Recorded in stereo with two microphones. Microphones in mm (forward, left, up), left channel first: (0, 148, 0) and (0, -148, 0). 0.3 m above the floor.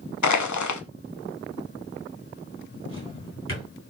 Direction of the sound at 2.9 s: 50° left (ahead or behind).